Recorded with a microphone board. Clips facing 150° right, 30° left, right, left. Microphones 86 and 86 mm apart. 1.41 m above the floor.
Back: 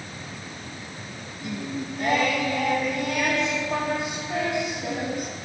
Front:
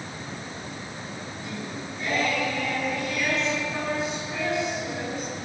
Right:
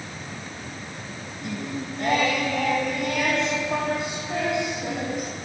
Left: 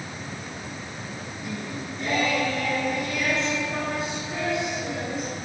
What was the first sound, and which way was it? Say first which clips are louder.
Singing: back 7 dB, right 4 dB; 120° right.